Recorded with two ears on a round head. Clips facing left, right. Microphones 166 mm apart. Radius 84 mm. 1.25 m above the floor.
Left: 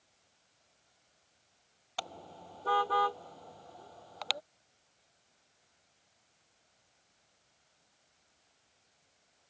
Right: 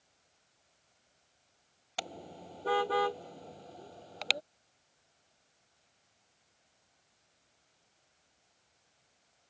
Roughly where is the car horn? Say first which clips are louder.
Right 1 dB; right.